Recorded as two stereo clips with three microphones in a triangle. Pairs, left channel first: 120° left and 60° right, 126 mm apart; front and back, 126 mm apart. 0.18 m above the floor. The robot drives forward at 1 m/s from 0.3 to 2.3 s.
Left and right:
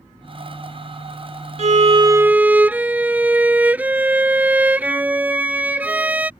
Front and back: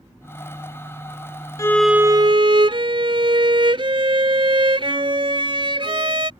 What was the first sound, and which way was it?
A violin, 60° right.